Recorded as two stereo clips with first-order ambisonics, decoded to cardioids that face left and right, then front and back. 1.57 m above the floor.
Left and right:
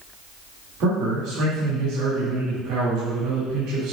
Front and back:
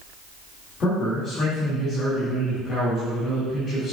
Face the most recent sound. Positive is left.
turn(degrees=-60)